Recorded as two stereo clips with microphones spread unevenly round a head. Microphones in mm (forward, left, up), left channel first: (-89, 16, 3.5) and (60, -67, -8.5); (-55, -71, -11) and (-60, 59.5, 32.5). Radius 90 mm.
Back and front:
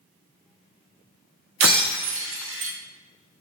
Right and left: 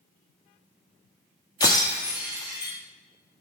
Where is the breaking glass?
15° right, 0.8 m.